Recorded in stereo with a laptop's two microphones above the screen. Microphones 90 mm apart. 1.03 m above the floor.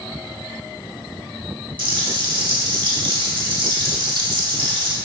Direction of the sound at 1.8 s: 70° right (ahead or behind).